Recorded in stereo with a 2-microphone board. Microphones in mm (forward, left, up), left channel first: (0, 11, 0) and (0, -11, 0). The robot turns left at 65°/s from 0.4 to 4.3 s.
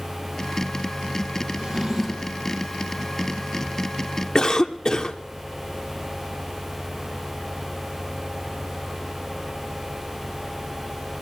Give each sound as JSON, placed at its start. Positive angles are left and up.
{"t": 1.6, "sound": "a drawer", "azimuth_deg": -155, "distance_m": 3.5}
{"t": 4.3, "sound": "a cough", "side_deg": 30, "distance_m": 1.0}